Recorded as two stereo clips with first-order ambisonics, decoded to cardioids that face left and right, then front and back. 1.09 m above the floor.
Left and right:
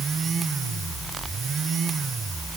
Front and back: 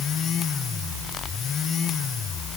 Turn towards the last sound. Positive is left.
No sound to turn to.